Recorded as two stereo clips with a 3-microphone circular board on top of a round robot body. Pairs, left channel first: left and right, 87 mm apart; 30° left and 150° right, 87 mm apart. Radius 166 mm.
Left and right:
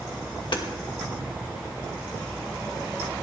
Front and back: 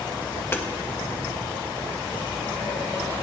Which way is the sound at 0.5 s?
90° left.